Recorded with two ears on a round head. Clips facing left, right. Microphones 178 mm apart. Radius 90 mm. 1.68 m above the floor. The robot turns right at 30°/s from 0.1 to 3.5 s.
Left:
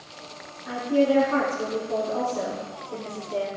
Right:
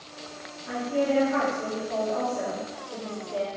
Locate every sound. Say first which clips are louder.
0.7 s a woman speaking: left 4 dB; 85° left, 3 m; by 3.5 s 165° left, 3 m